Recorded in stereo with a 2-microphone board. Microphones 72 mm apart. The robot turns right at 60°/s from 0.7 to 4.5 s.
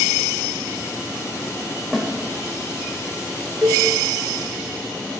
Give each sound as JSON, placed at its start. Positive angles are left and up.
{"t": 1.9, "sound": "a snare drum", "side_deg": -5, "distance_m": 0.8}
{"t": 3.6, "sound": "a cowbell", "side_deg": -50, "distance_m": 0.9}